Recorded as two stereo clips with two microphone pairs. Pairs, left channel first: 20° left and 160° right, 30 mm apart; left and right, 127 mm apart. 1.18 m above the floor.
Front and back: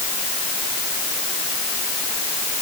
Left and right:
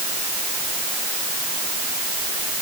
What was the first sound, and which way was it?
Only background noise.